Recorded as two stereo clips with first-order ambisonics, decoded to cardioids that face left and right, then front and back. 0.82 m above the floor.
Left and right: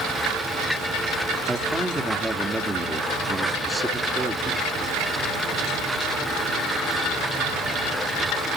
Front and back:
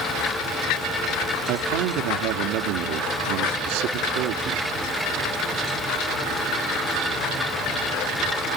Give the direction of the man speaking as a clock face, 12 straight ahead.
6 o'clock.